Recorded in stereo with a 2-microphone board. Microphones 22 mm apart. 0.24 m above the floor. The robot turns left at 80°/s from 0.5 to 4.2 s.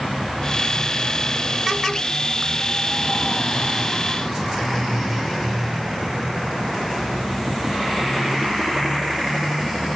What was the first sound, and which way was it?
Only background noise.